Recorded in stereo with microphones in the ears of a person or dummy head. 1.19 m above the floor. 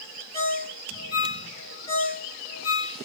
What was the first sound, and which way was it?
A ringtone, 30° left (ahead or behind).